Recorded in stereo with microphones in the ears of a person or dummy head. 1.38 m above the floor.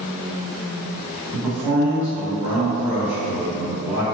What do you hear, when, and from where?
1.3 s a man speaking: 5° right (ahead or behind), 1.4 m